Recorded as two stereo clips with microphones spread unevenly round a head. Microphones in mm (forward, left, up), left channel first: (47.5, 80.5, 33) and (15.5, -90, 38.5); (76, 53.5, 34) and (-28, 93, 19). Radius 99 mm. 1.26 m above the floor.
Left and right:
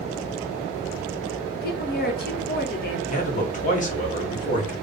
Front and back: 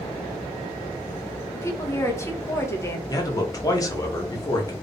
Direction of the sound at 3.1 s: 40° left.